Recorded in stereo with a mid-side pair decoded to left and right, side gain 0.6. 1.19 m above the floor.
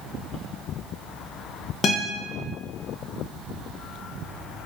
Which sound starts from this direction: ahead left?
A guitar, at 1.8 s.